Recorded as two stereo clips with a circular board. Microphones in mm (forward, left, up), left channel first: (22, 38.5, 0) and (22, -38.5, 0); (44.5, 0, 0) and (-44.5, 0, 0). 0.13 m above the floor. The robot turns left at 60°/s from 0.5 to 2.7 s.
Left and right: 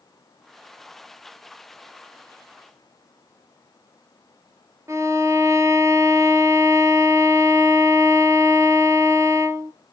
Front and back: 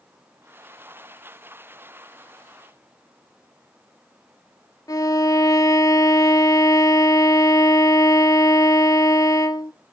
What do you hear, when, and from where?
4.9 s a violin: 45° right, 0.8 m